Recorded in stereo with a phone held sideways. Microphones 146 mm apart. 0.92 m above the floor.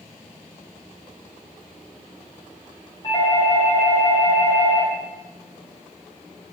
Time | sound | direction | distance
3.0 | a doorbell | 30° left (ahead or behind) | 1.2 m